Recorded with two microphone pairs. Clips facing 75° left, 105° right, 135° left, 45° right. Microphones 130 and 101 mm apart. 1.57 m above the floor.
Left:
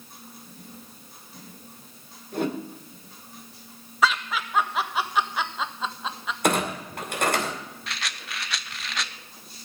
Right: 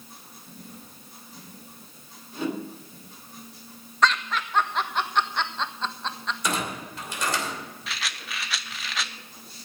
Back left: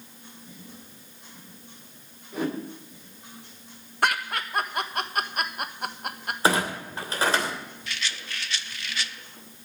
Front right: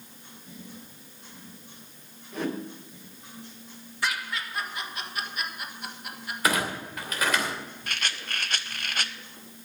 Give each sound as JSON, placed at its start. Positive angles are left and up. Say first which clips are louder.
{"t": 2.3, "sound": "a whoosh", "louder": "left 2 dB, back left 2 dB", "azimuth_deg": 55, "distance_m": 3.5}
{"t": 4.0, "sound": "laughter", "louder": "even, back left 5 dB", "azimuth_deg": 155, "distance_m": 1.3}
{"t": 6.4, "sound": "a clunk", "louder": "left 7 dB, back left 3 dB", "azimuth_deg": 80, "distance_m": 2.5}
{"t": 7.9, "sound": "a rattle", "louder": "even, front right 2 dB", "azimuth_deg": -15, "distance_m": 0.6}